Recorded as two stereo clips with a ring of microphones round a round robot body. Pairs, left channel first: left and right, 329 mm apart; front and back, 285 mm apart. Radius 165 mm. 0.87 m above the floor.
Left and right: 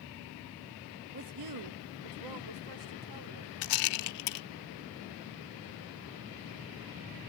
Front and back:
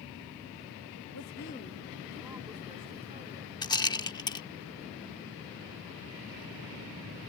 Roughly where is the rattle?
Left.